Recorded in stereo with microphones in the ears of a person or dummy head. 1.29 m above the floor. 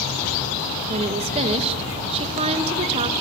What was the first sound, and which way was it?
A woman speaking, 35° right (ahead or behind).